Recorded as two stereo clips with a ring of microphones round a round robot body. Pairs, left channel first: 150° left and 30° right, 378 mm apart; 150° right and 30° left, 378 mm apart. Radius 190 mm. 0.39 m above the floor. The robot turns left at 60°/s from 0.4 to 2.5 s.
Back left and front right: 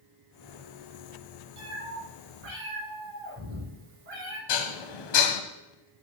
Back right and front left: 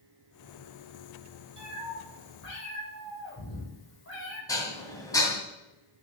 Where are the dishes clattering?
130° left, 2.0 m.